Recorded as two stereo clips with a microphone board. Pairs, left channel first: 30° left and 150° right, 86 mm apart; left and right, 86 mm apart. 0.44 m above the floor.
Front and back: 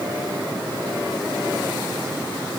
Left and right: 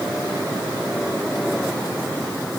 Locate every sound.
Only background noise.